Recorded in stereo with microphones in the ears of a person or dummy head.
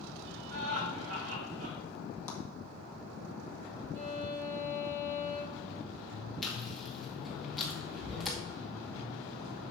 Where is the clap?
15° left (ahead or behind), 1.7 m.